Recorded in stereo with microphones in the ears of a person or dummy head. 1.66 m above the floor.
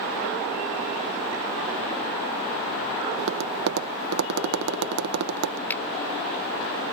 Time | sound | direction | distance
3.2 | tapping | 60° right (ahead or behind) | ?
5.7 | a finger snap | 15° left (ahead or behind) | ?